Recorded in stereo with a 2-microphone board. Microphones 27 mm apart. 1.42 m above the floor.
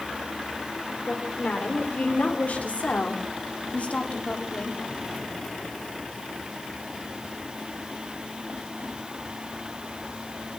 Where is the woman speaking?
80° left, 6 m; by 4.8 s 50° left (ahead or behind), 4.5 m.